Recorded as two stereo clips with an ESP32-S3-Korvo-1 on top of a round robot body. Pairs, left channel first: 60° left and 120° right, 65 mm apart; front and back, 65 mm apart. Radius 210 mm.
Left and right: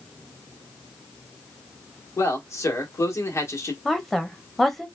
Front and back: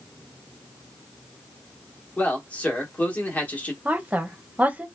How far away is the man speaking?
About 1.3 m.